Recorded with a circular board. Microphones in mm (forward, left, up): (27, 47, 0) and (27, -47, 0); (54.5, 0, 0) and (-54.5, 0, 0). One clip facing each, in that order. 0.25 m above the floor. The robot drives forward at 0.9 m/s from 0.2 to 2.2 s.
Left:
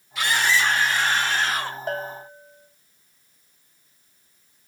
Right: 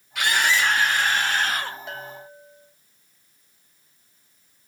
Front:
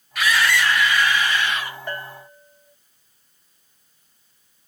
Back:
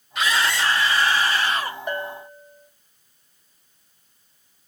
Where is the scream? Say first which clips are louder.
Even, front 2 dB; 115° right, 5 m; by 1.8 s 125° right, 6 m.